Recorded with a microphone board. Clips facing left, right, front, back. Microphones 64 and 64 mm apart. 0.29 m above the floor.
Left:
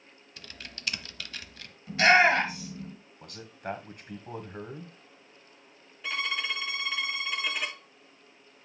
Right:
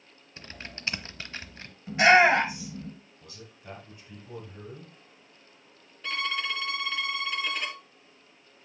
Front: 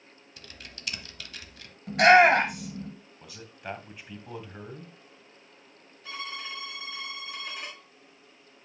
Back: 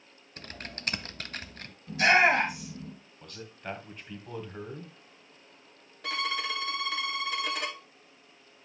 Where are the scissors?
No scissors in this recording.